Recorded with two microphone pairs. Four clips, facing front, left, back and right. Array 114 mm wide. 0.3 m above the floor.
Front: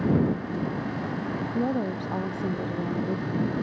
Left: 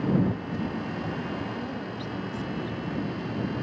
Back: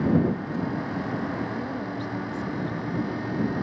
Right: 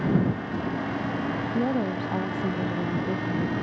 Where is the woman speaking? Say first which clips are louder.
Right 8 dB, front 4 dB; 45° right; by 3.5 s 50° right.